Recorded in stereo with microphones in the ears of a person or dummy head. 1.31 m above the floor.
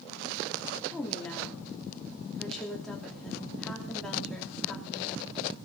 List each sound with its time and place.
0.9 s a woman speaking: centre (ahead or behind), 2.5 m